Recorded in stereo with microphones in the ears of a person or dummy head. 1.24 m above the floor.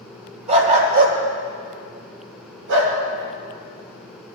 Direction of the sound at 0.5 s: 35° right (ahead or behind).